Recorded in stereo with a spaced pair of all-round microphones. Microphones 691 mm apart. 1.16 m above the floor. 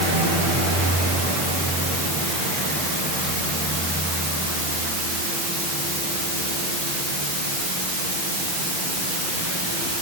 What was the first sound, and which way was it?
Only background noise.